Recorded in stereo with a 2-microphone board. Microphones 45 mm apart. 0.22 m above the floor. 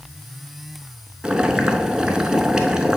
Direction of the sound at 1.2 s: 15° right (ahead or behind).